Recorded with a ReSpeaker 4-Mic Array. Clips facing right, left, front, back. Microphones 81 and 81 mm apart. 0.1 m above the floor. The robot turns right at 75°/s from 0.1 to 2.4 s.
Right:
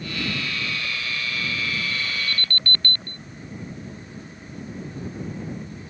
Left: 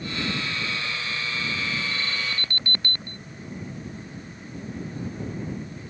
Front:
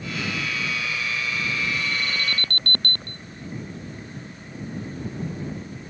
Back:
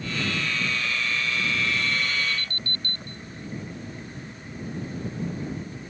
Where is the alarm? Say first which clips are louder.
Right 1 dB, even; 20° right; by 3.2 s 15° left.